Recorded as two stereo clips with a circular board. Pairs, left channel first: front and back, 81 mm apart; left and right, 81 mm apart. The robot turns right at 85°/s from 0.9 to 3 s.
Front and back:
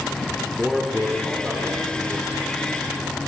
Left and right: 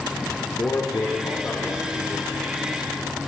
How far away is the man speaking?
About 1.2 m.